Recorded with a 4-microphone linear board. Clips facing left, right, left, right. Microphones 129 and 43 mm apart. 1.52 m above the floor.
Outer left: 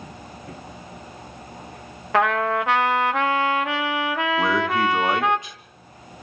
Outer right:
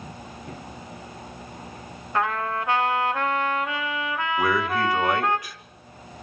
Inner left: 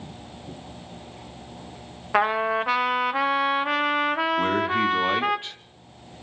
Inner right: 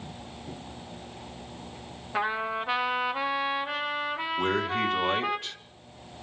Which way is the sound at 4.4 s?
25° left (ahead or behind).